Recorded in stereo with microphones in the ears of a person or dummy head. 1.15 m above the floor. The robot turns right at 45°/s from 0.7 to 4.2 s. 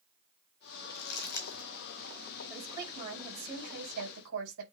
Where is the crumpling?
65° left (ahead or behind), 4 m; by 1.7 s 30° left (ahead or behind), 4 m.